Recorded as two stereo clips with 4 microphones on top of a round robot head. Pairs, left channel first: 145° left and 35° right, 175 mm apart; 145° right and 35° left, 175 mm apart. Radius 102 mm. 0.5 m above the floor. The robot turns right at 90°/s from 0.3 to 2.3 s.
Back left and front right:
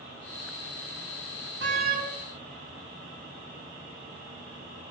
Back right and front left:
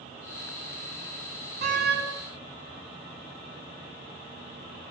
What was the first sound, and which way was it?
A door slam, 20° right.